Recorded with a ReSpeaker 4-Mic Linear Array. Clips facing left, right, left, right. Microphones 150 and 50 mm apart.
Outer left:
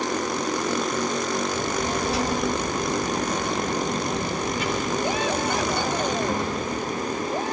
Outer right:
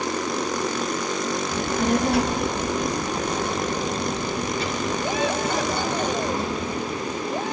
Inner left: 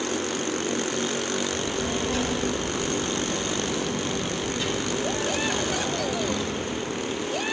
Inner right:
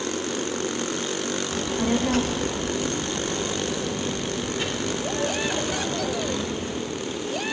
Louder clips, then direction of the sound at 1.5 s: Outer right 3 dB, inner right 3 dB; 65° right (ahead or behind).